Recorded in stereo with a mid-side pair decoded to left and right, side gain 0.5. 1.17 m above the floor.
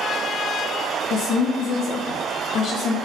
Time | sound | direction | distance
1.1 | a woman speaking | 60° left | 0.5 m